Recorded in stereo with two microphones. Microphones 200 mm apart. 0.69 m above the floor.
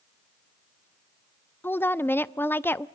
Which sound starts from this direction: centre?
A woman speaking, at 1.6 s.